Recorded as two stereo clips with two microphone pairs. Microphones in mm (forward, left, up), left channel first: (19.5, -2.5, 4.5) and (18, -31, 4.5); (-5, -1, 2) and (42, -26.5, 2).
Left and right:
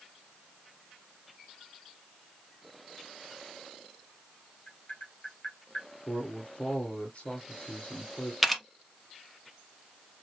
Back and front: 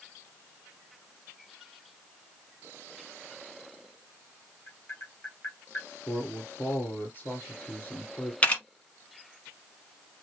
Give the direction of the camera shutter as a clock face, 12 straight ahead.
6 o'clock.